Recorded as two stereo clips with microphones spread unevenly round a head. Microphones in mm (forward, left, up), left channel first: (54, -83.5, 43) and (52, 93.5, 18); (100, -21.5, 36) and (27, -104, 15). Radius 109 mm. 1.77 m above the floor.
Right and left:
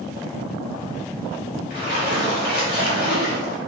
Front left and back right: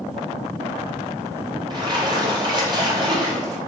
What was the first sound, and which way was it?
A splash, 75° right.